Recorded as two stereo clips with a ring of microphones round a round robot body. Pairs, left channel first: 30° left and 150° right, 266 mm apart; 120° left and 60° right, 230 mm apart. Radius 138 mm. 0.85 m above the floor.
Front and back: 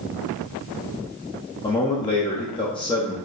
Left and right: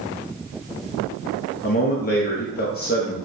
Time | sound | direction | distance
1.6 | a man speaking | 95° left | 0.7 m